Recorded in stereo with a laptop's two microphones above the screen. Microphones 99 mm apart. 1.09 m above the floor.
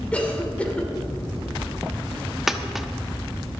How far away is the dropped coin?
About 0.8 m.